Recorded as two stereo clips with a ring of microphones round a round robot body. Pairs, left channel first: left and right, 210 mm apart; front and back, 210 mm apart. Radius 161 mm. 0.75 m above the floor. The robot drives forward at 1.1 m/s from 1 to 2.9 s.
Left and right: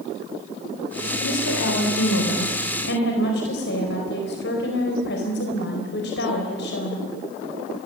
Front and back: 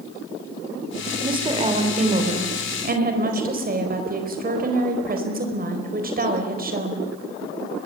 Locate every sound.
1.2 s a woman speaking: 110° left, 3.5 m; by 7.0 s 135° left, 4.5 m